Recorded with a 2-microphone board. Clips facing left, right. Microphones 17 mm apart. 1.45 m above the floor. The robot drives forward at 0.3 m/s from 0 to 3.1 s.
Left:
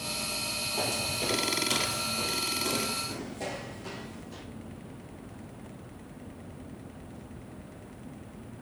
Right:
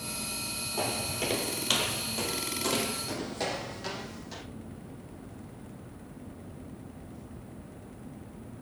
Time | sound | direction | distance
0.8 | footsteps | 10° right (ahead or behind) | 1.6 m